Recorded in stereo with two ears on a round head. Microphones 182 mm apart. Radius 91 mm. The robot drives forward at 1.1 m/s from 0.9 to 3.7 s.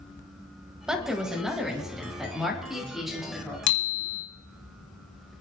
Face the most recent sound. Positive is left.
turn(degrees=60)  # may be behind; listen again after turning